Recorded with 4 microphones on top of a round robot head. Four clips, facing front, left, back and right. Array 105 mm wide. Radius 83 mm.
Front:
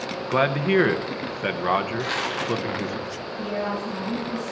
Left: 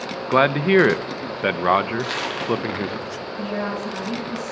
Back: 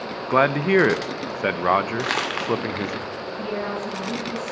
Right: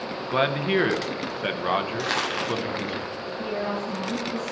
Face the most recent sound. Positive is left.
turn(degrees=100)